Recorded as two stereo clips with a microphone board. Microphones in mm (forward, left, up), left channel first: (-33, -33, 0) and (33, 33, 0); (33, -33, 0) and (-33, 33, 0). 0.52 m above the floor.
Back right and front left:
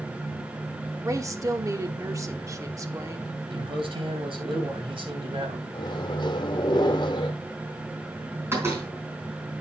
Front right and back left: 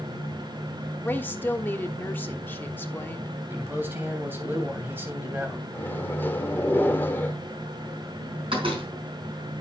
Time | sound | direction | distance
1.0 | a woman speaking | 15° left | 1.2 m
3.5 | a man speaking | 70° left | 3 m
5.7 | a microwave | 110° right | 1.3 m
8.5 | a door slam | 110° left | 4 m